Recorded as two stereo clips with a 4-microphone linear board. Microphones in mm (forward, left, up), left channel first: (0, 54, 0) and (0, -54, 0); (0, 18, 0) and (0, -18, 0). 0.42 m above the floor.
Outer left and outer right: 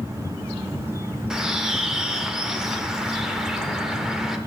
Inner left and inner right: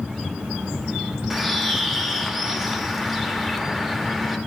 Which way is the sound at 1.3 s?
5° right (ahead or behind).